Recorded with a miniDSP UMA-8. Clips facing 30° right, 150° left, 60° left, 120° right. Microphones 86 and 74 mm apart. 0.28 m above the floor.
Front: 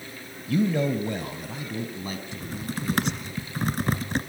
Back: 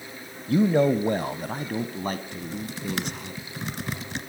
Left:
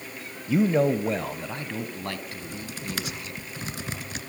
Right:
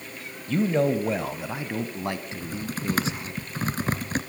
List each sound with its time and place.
0.5 s a man speaking: 125° left, 1.0 m; by 3.3 s straight behind, 2.5 m
2.3 s typing on a keyboard: 75° right, 1.5 m